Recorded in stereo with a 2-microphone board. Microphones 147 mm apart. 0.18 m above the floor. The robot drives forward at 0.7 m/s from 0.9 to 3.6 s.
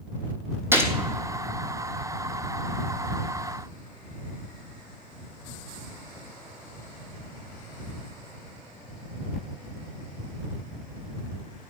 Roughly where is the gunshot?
Centre.